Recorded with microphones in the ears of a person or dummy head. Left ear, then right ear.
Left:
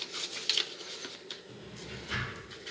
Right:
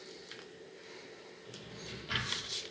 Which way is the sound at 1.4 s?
45° right (ahead or behind).